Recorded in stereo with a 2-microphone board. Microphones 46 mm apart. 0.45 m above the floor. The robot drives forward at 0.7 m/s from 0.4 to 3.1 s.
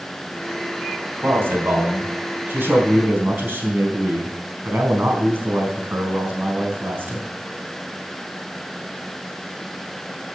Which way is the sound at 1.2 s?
55° right (ahead or behind).